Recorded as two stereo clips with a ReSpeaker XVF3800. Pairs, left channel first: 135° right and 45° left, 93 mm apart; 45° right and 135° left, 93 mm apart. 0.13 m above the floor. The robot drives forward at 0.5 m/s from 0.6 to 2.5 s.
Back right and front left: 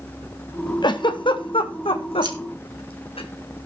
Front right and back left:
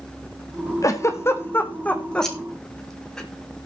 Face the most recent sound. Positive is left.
turn(degrees=40)